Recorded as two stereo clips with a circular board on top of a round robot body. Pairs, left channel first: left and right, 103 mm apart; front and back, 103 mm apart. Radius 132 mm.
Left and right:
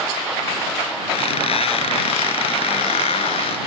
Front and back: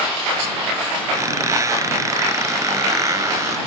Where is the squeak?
120° left.